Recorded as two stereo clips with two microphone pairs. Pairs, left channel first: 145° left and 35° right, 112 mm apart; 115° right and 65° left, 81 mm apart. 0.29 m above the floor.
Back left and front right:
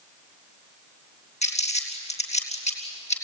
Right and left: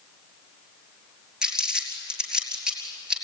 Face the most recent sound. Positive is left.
turn(degrees=145)